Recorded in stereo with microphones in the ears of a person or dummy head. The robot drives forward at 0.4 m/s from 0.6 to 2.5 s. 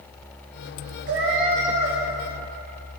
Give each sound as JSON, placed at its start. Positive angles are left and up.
{"t": 1.1, "sound": "a cat meowing", "side_deg": -35, "distance_m": 1.0}